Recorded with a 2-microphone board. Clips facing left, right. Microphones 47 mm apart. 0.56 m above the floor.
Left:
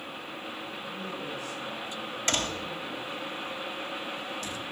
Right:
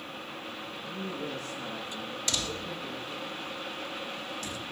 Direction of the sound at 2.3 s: 40° left (ahead or behind).